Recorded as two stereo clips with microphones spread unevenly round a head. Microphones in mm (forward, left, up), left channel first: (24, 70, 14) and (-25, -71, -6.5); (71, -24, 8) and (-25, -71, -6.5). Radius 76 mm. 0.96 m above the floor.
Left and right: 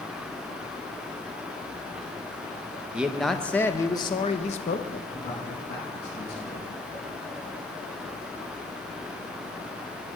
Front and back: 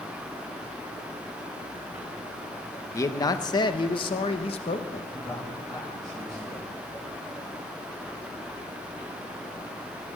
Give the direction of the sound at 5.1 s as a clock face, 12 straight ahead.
8 o'clock.